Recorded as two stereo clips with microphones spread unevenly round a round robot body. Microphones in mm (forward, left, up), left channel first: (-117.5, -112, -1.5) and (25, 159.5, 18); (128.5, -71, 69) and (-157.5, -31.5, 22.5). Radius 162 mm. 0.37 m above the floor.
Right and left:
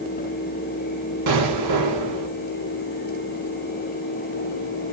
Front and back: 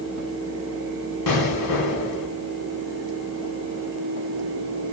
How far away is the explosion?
About 2.0 m.